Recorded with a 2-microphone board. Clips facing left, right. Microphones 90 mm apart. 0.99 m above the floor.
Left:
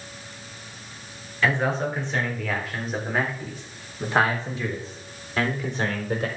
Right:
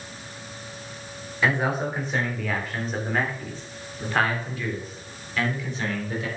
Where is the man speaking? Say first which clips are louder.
Left 1 dB; 15° right (ahead or behind), 3.5 m; by 6.3 s 45° left (ahead or behind), 3.5 m.